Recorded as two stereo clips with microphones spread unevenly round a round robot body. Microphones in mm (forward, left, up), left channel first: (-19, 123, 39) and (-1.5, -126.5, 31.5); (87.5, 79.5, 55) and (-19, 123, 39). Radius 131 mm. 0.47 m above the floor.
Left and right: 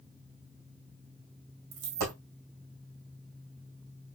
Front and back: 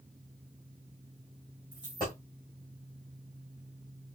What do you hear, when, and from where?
1.7 s a dropped coin: 90° right, 2 m